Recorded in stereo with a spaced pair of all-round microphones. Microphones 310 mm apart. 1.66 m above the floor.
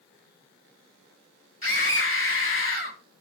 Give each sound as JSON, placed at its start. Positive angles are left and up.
{"t": 1.6, "sound": "a scream", "side_deg": 45, "distance_m": 1.4}